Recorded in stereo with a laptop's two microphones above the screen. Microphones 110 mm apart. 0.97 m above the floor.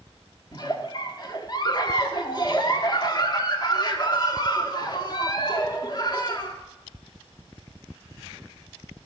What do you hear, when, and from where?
0.5 s a giggle: 40° left (ahead or behind), 1.0 m